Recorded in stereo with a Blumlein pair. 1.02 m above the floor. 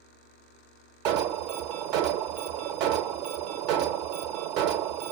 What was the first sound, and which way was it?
An alarm, 40° right.